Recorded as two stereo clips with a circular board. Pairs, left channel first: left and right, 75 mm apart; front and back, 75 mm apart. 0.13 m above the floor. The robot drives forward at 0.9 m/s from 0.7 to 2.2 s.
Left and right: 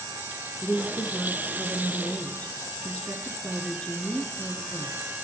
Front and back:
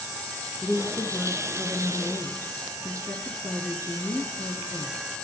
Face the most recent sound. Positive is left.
turn(degrees=155)